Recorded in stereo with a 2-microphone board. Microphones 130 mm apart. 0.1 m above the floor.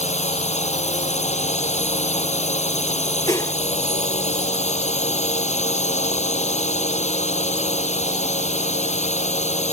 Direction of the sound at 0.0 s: 65° left (ahead or behind).